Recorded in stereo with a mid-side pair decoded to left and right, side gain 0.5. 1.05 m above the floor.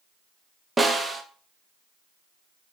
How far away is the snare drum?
About 0.5 m.